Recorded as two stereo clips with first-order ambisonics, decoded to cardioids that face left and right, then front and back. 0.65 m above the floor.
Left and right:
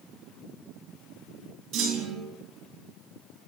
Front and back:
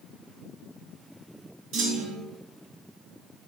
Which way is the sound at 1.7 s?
140° right.